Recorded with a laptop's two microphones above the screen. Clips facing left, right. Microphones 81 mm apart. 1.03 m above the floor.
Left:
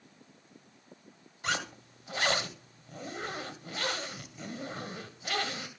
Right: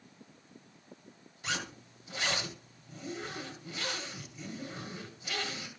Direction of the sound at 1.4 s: 60° left (ahead or behind).